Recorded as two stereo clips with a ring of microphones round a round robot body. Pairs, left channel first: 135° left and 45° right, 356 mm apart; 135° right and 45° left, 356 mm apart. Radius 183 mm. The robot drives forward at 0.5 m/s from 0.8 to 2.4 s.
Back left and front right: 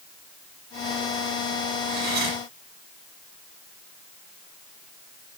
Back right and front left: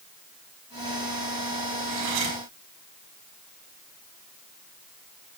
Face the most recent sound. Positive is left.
turn(degrees=20)